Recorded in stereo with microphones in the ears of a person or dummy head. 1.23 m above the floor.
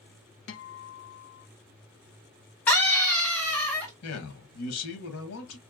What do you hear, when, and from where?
0.5 s a guitar: 65° left (ahead or behind), 1.1 m
2.7 s a scream: 5° left (ahead or behind), 1.5 m
4.0 s a man speaking: 80° left, 1.5 m